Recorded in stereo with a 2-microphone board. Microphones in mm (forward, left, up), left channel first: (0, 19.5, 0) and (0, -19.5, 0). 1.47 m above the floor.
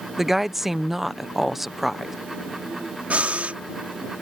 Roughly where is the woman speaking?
Centre.